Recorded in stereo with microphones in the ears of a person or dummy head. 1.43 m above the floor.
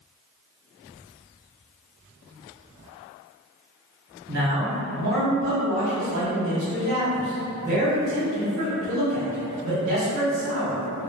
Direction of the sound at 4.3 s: 45° right (ahead or behind).